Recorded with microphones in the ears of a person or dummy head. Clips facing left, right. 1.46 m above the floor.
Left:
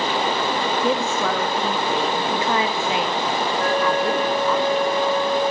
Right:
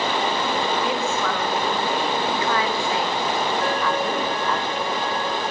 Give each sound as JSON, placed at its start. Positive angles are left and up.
{"t": 0.8, "sound": "a woman speaking", "side_deg": 35, "distance_m": 3.5}
{"t": 3.6, "sound": "a flute", "side_deg": 40, "distance_m": 9.5}